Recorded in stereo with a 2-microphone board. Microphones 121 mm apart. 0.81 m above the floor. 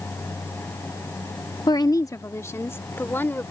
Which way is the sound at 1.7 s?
35° left (ahead or behind).